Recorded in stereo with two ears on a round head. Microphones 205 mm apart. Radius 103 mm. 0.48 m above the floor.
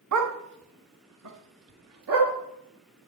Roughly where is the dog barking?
Right.